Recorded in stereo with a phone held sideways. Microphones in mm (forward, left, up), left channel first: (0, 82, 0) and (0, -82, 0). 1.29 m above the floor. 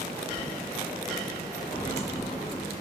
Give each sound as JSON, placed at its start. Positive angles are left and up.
{"t": 1.7, "sound": "footsteps", "side_deg": 35, "distance_m": 1.5}